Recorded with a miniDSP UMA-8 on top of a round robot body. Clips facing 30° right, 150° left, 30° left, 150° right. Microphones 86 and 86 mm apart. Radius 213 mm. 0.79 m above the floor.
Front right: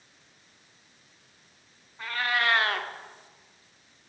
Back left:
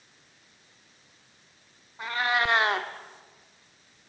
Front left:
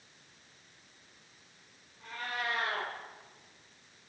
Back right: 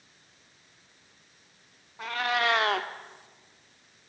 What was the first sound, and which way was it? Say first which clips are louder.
A cat meowing: back left 2 dB, back right 10 dB; 140° right.